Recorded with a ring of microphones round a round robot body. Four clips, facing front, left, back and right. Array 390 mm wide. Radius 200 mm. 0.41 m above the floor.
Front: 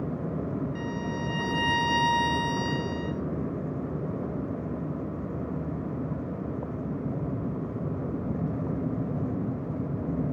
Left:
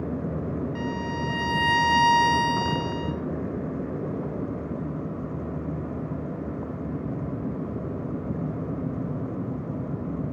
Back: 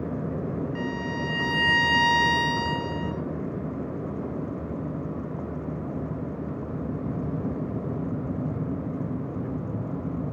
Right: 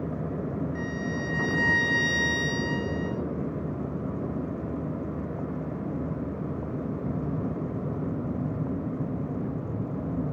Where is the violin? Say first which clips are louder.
Left 2 dB, back 2 dB; 130° left, 3 m.